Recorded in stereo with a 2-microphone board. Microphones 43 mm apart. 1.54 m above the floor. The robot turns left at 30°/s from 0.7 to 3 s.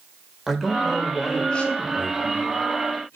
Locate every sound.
0.5 s a man speaking: 175° right, 3.5 m; by 3.2 s 115° left, 3.5 m